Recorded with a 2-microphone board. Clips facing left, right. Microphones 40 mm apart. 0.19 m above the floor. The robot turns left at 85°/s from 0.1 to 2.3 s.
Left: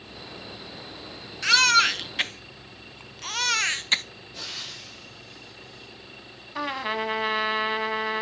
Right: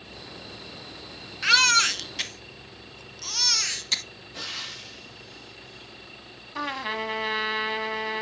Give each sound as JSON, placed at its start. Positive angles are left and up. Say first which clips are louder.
{"t": 1.4, "sound": "a baby crying", "louder": "left 1 dB", "side_deg": -10, "distance_m": 0.5}
{"t": 4.3, "sound": "frying", "louder": "right 2 dB", "side_deg": -35, "distance_m": 4.0}
{"t": 6.5, "sound": "a trumpet", "louder": "left 2 dB", "side_deg": 5, "distance_m": 1.1}